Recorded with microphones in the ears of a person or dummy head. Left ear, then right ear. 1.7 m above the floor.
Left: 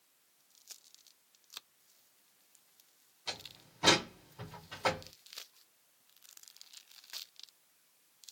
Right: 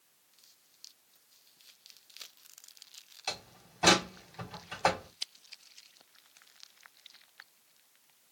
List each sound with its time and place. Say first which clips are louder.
3.3 s a door slam: right 3 dB; 35° right (ahead or behind), 3.5 m